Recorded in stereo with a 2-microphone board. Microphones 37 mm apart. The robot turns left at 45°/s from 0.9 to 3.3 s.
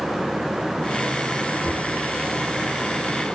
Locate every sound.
1.6 s knocking: 85° left, 5.5 m; by 1.9 s 75° left (ahead or behind), 5.5 m